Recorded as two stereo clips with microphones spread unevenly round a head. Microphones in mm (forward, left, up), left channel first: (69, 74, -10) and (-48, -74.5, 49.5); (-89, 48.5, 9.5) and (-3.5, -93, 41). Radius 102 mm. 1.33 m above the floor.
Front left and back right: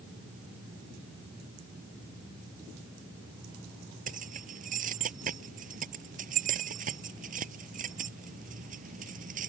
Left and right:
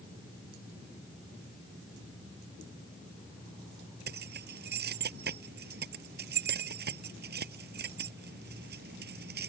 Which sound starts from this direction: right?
Keys jangling, at 4.1 s.